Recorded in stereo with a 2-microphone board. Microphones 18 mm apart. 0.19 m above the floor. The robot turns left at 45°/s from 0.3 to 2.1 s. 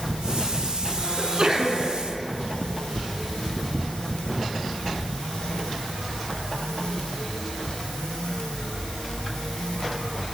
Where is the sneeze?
40° right, 1.7 m; by 1.9 s 70° right, 1.7 m.